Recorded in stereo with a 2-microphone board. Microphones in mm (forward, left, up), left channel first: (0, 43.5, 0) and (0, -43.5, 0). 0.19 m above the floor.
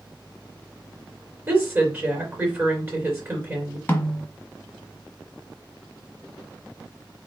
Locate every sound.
1.5 s a woman speaking: 25° right (ahead or behind), 3 m
3.9 s a snare drum: 20° left (ahead or behind), 1.2 m